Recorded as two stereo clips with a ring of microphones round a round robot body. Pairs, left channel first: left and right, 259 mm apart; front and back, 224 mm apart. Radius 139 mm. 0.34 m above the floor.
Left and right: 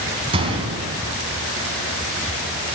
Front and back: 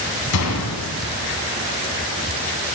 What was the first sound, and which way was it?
A gunshot, 20° right.